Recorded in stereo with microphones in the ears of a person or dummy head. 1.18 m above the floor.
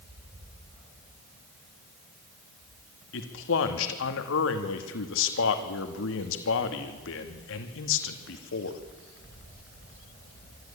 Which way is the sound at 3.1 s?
65° left (ahead or behind).